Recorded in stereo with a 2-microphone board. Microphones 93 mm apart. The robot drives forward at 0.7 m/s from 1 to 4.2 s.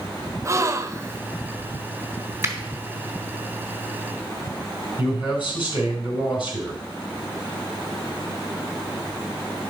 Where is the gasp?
35° right (ahead or behind), 0.5 m.